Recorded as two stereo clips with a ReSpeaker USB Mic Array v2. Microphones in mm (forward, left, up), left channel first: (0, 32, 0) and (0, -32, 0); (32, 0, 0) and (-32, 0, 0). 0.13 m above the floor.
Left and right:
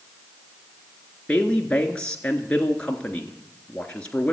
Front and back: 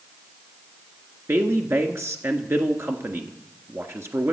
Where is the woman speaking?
155° left, 1.6 m.